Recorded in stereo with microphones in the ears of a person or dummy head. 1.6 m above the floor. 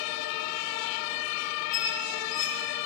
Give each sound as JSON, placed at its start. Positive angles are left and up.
{"t": 1.7, "sound": "a squeak", "side_deg": 50, "distance_m": 7.0}